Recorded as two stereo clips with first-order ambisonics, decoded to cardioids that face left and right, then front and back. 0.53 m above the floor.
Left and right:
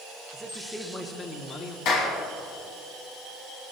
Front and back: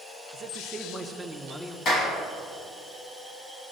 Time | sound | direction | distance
0.3 | a man speaking | 165° right | 1.1 m
1.9 | a clap | 55° left | 3 m